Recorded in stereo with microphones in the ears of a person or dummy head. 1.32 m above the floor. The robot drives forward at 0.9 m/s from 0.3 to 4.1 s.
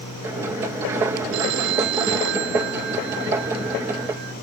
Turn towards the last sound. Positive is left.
turn(degrees=-60)  # may be behind; listen again after turning